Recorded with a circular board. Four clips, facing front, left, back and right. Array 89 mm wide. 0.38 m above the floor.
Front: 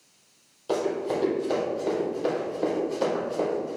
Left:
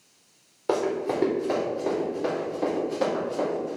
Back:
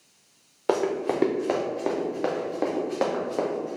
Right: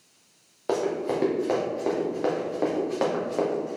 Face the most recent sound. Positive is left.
turn(degrees=-135)